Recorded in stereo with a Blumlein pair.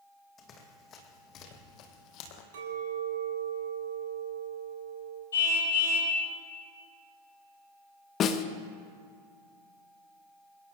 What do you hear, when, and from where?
0.4 s running footsteps: 25° left, 3.5 m; by 2.4 s 40° left, 2.5 m
2.5 s a clink: 55° right, 5.5 m
5.3 s a car horn: 65° left, 7.5 m
8.2 s a snare drum: 30° left, 1.2 m